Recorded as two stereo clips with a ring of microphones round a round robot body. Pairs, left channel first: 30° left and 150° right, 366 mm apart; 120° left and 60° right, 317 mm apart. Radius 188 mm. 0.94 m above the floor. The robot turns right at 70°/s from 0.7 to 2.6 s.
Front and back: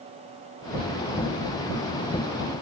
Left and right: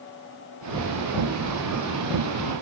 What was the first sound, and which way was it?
Only background noise.